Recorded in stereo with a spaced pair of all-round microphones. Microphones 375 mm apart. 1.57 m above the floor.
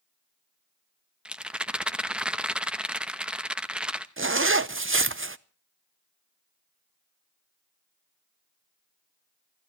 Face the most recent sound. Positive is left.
turn(degrees=-35)  # may be behind; listen again after turning